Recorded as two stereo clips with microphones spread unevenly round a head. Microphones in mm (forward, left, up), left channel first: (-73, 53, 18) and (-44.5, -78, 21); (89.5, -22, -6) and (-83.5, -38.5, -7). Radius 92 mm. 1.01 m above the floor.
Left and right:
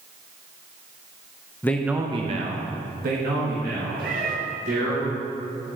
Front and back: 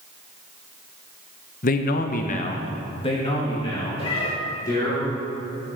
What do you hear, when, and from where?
1.6 s a man speaking: 35° left, 0.5 m; by 5.0 s 65° right, 2.5 m
4.0 s a cat meowing: 50° right, 1.1 m